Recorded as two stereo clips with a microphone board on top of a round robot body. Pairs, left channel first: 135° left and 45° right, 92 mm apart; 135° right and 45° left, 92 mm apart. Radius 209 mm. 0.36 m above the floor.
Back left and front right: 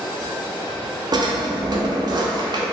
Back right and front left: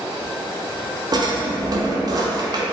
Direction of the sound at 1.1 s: Straight ahead.